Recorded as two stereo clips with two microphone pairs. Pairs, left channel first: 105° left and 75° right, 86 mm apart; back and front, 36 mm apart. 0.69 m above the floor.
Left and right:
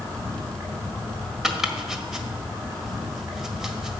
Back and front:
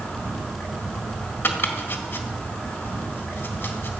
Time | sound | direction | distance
0.0 | an insect | 140° right | 8 m
1.4 | chopping | 160° right | 1.6 m